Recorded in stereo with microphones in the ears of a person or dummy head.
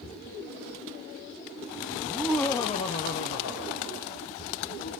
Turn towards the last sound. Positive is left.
turn(degrees=65)  # may be behind; listen again after turning